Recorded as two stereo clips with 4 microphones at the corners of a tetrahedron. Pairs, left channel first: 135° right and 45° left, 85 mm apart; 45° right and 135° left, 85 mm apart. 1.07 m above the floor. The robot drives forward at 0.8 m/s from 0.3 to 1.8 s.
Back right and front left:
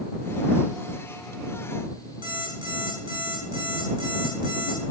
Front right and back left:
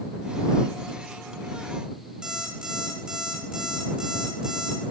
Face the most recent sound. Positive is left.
turn(degrees=55)